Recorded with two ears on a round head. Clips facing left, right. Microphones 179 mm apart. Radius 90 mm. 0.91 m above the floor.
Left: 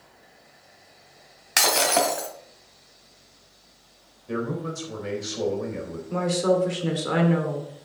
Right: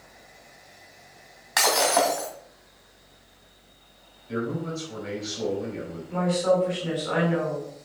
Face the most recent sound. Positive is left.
turn(degrees=60)  # may be behind; listen again after turning